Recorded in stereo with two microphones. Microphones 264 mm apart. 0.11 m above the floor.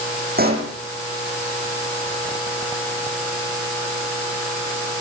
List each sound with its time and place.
0.4 s a pop: 35° right (ahead or behind), 7 m